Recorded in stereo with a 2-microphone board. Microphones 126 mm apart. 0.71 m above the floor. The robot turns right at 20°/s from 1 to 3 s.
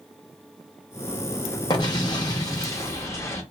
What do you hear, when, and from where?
1.7 s an explosion: 35° left (ahead or behind), 0.8 m; by 3.4 s 20° left (ahead or behind), 0.8 m